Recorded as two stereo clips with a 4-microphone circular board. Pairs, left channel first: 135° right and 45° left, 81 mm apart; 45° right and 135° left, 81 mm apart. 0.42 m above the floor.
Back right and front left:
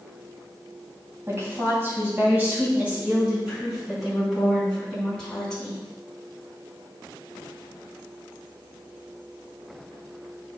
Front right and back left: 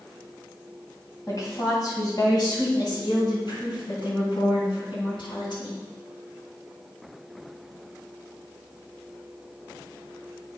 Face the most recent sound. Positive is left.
turn(degrees=-55)